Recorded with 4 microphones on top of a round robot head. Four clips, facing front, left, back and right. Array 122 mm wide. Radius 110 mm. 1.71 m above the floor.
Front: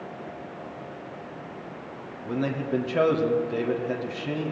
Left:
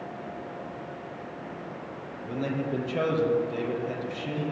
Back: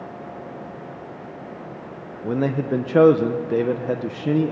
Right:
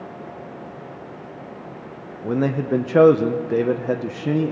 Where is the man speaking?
130° right, 1.2 m.